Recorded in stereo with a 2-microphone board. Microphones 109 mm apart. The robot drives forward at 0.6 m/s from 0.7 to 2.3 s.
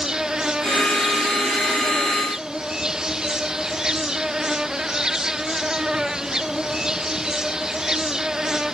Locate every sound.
0.0 s an insect: 5° right (ahead or behind)